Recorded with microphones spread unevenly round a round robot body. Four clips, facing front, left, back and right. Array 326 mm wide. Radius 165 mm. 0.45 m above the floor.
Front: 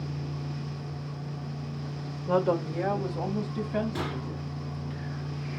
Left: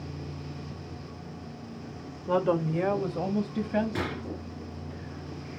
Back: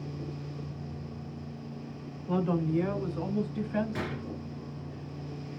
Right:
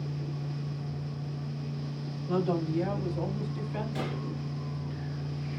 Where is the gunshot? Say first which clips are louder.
Left 2 dB, front 2 dB; 80° left, 3 m.